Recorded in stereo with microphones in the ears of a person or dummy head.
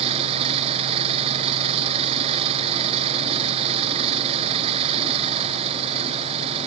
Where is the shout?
No shout in this recording.